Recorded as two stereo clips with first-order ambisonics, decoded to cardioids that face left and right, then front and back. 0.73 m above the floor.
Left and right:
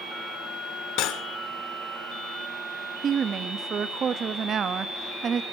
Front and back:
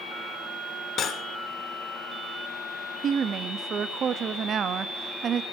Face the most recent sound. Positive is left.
turn(degrees=-135)